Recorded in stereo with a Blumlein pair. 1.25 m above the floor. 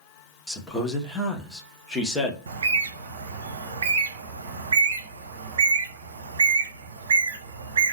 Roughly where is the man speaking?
Ahead.